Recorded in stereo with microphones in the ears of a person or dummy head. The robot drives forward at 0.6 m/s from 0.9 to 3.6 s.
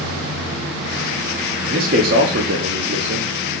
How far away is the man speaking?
About 0.9 m.